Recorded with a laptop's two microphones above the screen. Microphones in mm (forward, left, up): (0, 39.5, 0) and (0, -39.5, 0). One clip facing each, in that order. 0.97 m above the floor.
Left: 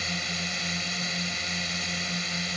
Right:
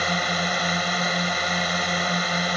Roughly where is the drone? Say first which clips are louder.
Right 10 dB; right.